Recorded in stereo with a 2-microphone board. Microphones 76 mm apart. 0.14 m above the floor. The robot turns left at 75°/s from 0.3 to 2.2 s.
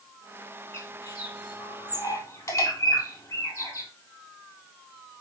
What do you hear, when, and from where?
0.7 s a bird: 30° left (ahead or behind), 1.8 m; by 3.9 s 40° left (ahead or behind), 1.8 m